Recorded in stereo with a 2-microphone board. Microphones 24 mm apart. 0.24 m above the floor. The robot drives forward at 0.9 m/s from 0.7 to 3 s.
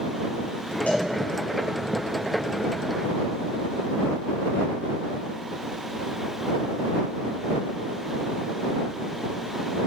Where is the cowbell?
75° left (ahead or behind), 4 m.